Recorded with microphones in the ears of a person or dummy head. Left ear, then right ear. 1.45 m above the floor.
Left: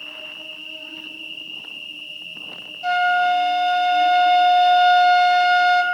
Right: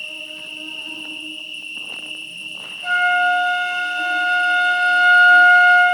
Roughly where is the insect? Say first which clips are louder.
Right 3 dB; right.